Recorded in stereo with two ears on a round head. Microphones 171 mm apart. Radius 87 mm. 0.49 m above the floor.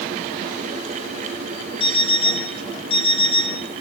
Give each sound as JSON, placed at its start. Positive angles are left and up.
{"t": 1.8, "sound": "an alarm clock", "side_deg": 25, "distance_m": 3.5}